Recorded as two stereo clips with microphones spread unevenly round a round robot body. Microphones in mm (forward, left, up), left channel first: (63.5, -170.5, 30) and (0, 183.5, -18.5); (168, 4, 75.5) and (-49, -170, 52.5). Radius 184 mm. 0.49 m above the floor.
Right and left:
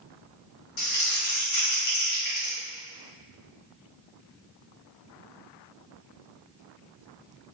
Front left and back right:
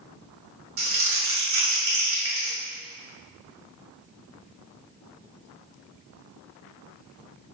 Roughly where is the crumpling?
Right.